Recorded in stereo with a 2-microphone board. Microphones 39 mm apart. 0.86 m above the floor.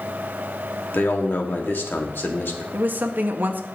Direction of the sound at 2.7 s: 60° right (ahead or behind).